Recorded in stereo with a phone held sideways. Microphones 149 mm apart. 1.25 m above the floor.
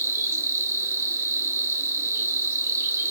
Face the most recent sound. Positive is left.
turn(degrees=-20)  # may be behind; listen again after turning